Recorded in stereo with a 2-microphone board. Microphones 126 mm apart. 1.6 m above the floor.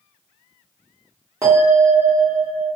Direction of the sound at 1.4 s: 25° right (ahead or behind).